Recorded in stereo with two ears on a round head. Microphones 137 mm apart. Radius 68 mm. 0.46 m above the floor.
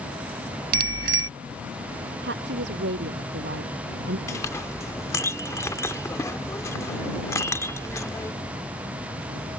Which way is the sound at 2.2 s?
85° right.